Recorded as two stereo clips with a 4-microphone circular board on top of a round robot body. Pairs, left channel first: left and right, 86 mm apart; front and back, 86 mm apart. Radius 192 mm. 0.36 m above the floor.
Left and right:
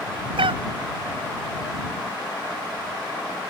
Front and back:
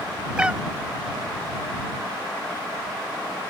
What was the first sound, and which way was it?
A cat meowing, 100° right.